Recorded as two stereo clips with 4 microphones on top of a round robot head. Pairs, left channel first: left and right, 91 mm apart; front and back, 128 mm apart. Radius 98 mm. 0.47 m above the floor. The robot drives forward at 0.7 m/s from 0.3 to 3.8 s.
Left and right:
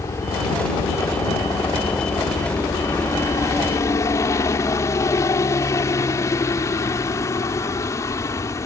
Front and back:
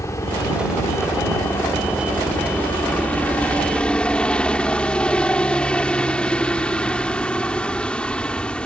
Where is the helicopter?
50° left; by 8.7 s 75° left.